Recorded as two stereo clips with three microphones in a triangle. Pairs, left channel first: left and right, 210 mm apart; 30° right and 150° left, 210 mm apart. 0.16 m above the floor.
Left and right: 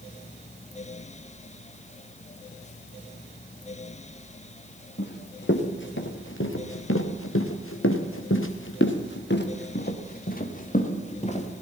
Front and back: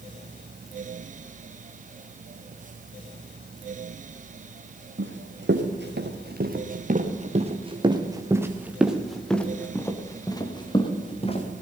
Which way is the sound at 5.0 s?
125° left.